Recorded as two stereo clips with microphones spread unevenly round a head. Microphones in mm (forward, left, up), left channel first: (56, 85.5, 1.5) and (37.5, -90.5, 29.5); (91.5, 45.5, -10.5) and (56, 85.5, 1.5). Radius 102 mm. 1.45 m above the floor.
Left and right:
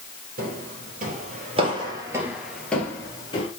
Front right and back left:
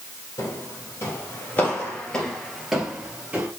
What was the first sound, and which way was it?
Footsteps, 95° right.